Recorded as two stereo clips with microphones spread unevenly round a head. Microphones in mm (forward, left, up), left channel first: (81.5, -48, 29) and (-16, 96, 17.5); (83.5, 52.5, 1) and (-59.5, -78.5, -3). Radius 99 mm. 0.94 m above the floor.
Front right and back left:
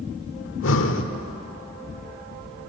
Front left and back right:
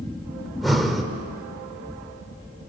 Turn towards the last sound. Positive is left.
turn(degrees=-45)